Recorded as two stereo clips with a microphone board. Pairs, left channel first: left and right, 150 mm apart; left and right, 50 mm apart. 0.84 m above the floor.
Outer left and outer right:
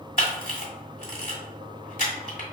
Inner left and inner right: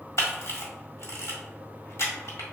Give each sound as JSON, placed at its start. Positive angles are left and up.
{"t": 0.2, "sound": "a camera shutter", "side_deg": 70, "distance_m": 1.2}